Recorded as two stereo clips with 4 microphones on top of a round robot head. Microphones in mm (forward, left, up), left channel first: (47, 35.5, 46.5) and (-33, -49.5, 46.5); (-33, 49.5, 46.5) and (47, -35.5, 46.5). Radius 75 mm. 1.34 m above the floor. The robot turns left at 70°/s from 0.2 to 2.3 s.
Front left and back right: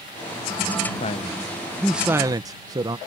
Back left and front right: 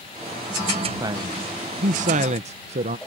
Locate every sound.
1.0 s a man speaking: 15° left; by 3.0 s 75° right